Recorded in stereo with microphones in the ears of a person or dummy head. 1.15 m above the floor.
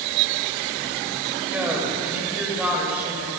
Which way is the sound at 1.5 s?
5° right (ahead or behind).